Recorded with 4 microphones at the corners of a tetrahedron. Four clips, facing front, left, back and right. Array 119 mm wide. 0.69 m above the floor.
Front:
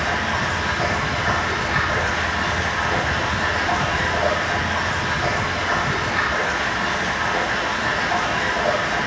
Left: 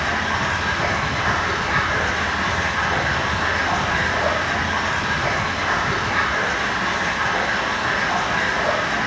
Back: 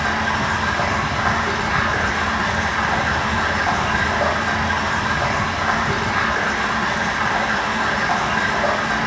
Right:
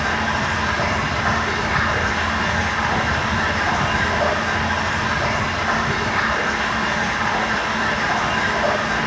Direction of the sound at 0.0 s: 155° right.